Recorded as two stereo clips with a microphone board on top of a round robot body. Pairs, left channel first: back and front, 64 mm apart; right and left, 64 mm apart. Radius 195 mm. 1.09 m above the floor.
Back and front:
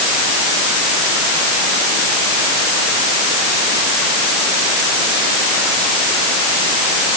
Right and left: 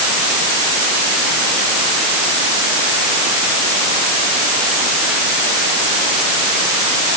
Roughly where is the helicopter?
I don't hear a helicopter.